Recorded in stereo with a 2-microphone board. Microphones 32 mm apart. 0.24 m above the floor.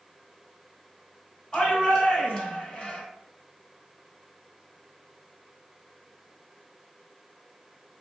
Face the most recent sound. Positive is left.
turn(degrees=20)  # may be behind; listen again after turning